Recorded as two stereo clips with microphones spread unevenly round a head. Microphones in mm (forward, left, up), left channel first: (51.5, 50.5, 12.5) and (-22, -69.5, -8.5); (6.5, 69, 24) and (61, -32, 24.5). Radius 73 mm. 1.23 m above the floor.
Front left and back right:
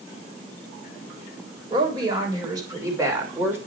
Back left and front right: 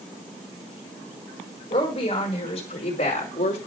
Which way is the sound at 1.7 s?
175° left.